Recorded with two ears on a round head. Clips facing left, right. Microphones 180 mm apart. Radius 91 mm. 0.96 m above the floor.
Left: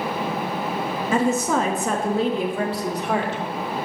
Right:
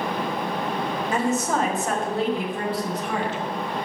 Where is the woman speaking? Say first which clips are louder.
Left 4 dB; 65° left (ahead or behind), 1.2 m; by 3.4 s 45° left (ahead or behind), 1.9 m.